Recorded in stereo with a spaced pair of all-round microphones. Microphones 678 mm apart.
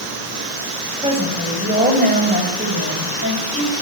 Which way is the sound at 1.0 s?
10° right (ahead or behind).